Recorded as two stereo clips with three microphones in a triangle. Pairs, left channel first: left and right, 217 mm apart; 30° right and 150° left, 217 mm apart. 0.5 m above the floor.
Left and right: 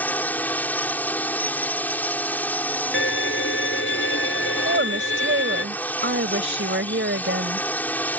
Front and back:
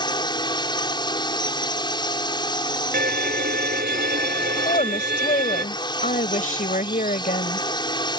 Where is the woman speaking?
80° right.